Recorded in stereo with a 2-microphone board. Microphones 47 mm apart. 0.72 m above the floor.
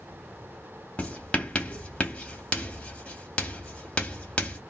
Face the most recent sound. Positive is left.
turn(degrees=25)  # may be behind; listen again after turning